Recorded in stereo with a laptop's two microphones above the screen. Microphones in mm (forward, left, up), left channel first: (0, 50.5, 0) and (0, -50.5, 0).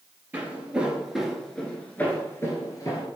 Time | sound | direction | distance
0.3 | footsteps | 20° right (ahead or behind) | 1.1 m